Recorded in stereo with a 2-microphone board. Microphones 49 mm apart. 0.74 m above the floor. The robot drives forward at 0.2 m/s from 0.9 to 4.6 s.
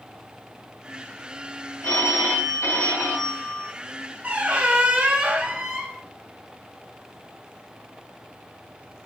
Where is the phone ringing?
80° left, 1.6 m.